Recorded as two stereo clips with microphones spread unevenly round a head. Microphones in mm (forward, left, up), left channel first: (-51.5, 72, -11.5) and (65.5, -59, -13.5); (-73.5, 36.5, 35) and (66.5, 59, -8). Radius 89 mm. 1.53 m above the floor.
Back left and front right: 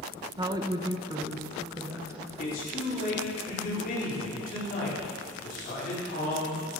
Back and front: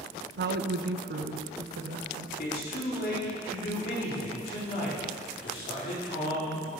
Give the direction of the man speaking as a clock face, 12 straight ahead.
6 o'clock.